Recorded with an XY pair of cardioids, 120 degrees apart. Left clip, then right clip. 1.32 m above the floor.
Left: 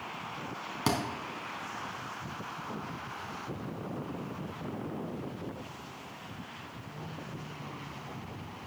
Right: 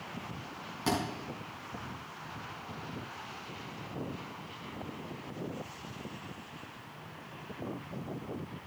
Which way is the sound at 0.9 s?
45° left.